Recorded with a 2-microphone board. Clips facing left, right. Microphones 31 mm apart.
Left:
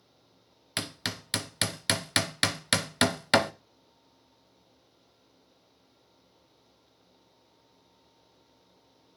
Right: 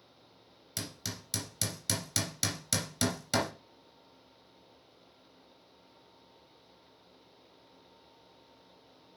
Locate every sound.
0.8 s hammering: 55° left (ahead or behind), 0.5 m